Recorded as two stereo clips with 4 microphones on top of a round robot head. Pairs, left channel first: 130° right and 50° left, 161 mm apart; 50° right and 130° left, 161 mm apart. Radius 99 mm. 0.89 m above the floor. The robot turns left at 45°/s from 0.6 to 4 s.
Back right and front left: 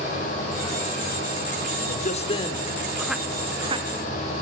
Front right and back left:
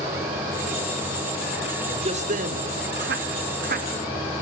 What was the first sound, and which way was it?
A man speaking, 170° right.